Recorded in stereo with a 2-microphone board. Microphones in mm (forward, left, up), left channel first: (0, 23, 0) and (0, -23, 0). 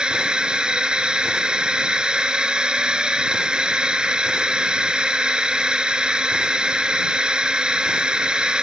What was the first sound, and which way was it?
A drone, 15° right (ahead or behind).